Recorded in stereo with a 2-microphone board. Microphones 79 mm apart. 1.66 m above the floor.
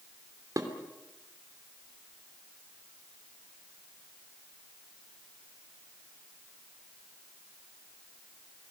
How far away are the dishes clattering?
About 3 m.